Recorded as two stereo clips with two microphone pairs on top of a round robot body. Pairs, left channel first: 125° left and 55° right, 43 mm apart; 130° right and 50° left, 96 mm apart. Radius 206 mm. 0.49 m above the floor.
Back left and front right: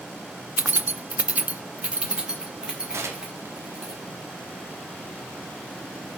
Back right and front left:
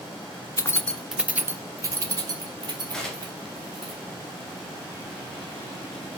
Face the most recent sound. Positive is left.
turn(degrees=-45)